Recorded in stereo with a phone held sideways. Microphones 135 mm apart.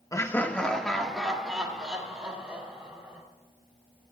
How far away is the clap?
I don't hear a clap.